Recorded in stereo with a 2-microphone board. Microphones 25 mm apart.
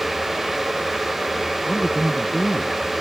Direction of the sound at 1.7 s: 20° left (ahead or behind).